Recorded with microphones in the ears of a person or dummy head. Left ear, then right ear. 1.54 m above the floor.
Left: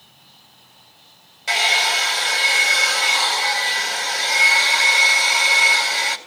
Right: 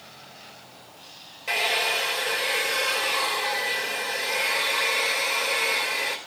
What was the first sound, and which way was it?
A hair dryer, 20° left (ahead or behind).